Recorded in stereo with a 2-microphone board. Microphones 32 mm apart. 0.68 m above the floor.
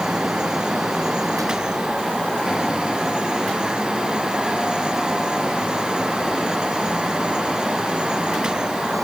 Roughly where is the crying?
No crying in this recording.